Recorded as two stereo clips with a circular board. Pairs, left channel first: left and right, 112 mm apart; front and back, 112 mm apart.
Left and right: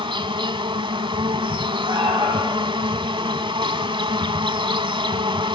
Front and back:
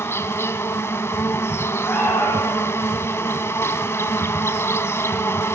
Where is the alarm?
65° right, 9 m.